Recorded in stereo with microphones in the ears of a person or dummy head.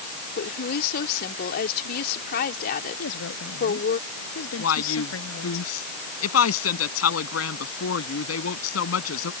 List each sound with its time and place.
0.4 s a woman speaking: 50° left (ahead or behind)
3.0 s a woman speaking: 80° left
4.6 s a woman speaking: 80° left